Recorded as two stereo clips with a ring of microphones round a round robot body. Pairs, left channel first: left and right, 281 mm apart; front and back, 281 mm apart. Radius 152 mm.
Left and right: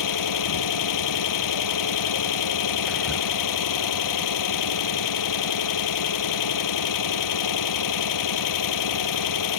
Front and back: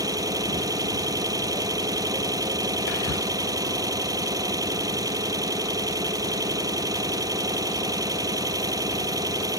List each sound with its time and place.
0.0 s an engine running: 100° left
2.9 s whispering: straight ahead